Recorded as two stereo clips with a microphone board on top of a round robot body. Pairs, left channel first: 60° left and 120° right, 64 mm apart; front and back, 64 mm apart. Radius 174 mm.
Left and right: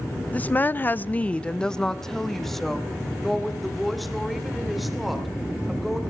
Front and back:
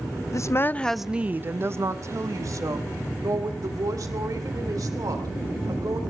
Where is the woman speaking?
Straight ahead, 0.6 m; by 6.0 s 150° left, 4 m.